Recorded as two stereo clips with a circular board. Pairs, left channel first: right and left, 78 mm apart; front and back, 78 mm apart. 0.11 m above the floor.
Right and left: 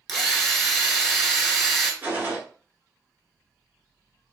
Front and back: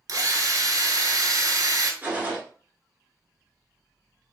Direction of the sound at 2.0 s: 130° left.